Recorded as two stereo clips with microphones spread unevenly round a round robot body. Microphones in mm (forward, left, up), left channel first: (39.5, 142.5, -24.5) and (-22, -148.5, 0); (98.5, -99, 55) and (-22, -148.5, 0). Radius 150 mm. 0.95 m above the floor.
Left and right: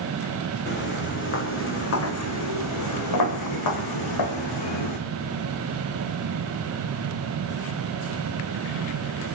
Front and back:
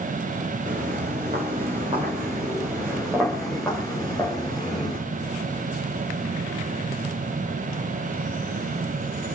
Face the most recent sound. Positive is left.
turn(degrees=90)